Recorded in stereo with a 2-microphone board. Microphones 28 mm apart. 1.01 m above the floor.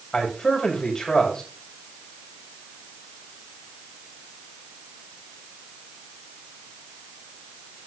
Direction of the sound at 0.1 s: 15° left (ahead or behind).